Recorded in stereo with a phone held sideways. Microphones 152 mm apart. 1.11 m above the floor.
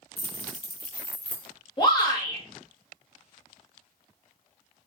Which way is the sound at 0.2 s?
80° left.